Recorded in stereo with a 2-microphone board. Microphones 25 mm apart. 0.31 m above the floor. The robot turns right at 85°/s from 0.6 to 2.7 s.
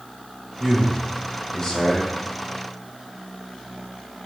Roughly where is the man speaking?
Centre.